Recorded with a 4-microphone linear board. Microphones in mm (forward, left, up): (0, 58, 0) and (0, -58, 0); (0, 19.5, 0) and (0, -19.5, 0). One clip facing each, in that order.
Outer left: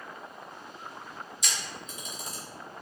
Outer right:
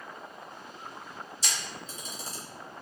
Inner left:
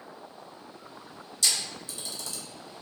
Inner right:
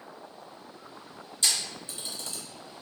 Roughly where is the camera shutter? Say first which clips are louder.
Even, even; right.